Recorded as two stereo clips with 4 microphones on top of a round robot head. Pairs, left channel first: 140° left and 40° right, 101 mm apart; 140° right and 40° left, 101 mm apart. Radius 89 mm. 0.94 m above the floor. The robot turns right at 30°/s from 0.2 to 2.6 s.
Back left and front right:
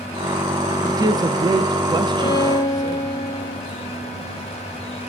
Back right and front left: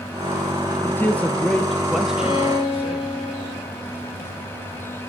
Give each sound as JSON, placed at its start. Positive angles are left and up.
{"t": 0.8, "sound": "a man speaking", "azimuth_deg": -80, "distance_m": 0.9}
{"t": 2.2, "sound": "a violin", "azimuth_deg": 180, "distance_m": 4.5}